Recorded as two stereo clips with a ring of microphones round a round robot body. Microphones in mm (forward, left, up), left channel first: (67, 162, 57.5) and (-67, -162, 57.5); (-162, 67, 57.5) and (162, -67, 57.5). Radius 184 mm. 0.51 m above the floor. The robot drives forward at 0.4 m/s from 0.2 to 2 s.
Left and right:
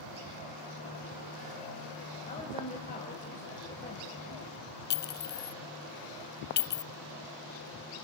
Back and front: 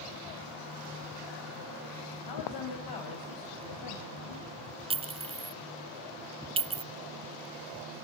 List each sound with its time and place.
2.3 s a woman speaking: 135° left, 4 m
4.9 s a clink: 40° left, 0.6 m